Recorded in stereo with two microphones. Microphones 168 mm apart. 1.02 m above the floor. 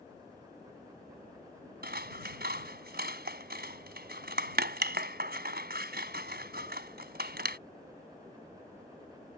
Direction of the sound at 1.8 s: 75° right (ahead or behind).